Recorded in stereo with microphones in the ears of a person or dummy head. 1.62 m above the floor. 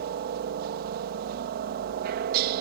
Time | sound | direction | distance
0.0 | a helicopter | 55° right (ahead or behind) | ?